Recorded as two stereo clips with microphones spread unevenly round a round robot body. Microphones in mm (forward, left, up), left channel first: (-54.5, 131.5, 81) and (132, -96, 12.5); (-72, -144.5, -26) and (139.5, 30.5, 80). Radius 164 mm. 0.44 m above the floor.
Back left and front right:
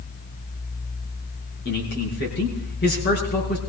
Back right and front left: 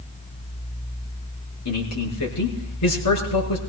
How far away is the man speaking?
About 6 m.